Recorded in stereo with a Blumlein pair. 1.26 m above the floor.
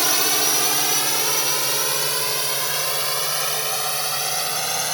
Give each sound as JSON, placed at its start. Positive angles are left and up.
{"t": 0.0, "sound": "a drone", "azimuth_deg": -5}